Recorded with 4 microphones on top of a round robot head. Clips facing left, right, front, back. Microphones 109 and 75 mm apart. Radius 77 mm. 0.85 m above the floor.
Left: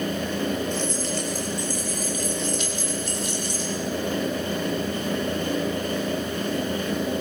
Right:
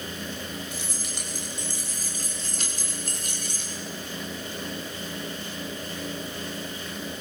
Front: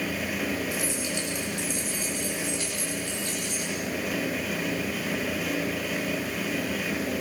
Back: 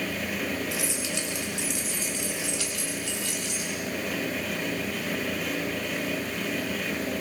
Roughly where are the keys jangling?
Behind.